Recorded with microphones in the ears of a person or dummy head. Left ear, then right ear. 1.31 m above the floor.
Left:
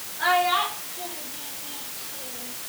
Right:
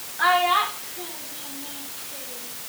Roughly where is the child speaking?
Right.